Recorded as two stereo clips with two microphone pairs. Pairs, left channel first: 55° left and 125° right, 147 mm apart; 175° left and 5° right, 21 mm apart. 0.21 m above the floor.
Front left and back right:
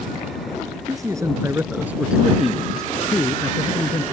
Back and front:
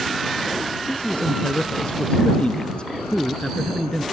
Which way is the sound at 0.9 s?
170° left.